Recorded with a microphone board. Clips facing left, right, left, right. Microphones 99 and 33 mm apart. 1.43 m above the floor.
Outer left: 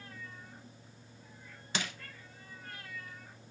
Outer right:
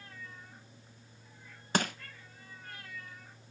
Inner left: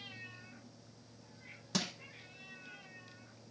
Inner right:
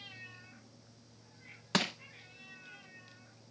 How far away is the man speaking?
No man speaking in this recording.